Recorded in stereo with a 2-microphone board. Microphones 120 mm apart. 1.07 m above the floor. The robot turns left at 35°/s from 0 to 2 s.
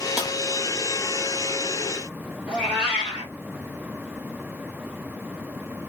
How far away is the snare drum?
About 1.0 m.